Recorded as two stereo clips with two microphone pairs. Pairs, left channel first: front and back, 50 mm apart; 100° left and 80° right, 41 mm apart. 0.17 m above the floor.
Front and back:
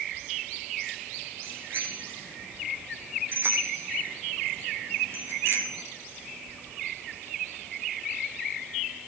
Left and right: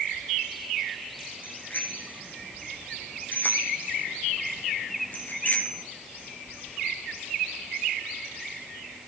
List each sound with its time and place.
1.4 s a bicycle bell: 140° left, 7.5 m; by 5.8 s 145° left, 3.5 m